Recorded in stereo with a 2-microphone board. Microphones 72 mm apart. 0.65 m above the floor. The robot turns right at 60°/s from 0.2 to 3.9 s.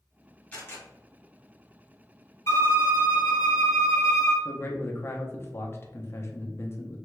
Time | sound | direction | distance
0.5 | a camera shutter | 25° left (ahead or behind) | 1.6 m
2.5 | a violin | 45° left | 1.0 m
4.5 | a man speaking | 35° left (ahead or behind) | 0.6 m